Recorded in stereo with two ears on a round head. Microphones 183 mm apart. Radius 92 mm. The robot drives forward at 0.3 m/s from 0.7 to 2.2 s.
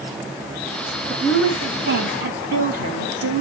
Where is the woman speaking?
50° right (ahead or behind), 5 m; by 3.4 s 45° right (ahead or behind), 5 m.